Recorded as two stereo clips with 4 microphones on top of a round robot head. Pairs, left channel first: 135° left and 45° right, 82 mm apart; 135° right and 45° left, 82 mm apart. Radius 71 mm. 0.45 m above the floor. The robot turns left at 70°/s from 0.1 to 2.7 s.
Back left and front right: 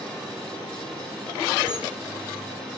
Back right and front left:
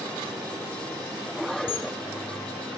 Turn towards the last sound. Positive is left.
turn(degrees=165)